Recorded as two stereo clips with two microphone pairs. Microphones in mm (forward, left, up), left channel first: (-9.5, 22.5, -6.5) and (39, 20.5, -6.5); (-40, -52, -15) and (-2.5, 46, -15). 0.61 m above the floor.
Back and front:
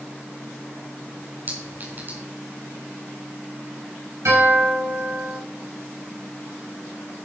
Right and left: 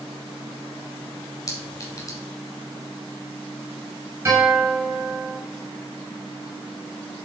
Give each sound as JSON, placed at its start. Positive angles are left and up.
{"t": 1.5, "sound": "a clink", "azimuth_deg": -50, "distance_m": 4.0}
{"t": 4.2, "sound": "a guitar", "azimuth_deg": 0, "distance_m": 6.5}